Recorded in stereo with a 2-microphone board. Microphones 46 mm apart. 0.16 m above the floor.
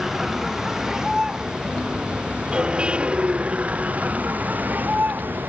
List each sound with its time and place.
0.0 s a vehicle: 10° right (ahead or behind); by 5.5 s 45° right (ahead or behind)